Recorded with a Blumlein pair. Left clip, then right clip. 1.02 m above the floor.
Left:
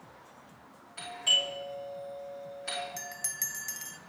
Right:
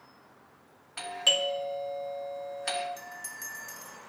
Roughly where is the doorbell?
Ahead right.